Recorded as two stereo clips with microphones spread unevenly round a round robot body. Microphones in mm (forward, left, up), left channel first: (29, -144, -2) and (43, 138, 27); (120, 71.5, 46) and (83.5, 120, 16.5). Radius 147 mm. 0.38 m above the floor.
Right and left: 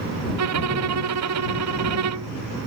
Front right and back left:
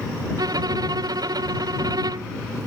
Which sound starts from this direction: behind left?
A violin, at 0.4 s.